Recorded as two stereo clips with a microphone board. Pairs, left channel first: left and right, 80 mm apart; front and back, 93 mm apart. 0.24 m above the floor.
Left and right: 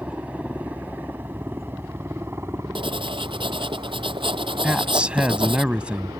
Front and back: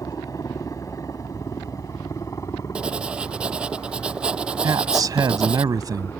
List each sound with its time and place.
0.0 s a helicopter: 25° right; by 6.2 s 55° right
2.8 s writing: 100° right
4.6 s a man speaking: 160° right